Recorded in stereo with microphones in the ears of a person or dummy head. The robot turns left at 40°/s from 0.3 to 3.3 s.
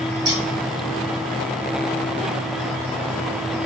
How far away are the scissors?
About 4 m.